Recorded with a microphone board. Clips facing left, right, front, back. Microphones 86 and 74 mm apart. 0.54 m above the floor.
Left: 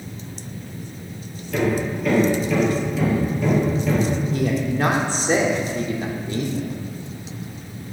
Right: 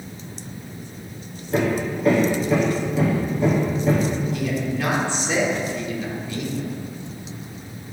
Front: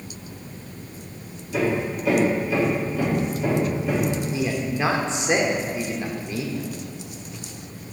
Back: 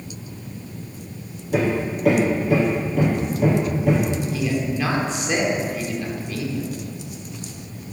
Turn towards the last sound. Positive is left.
turn(degrees=60)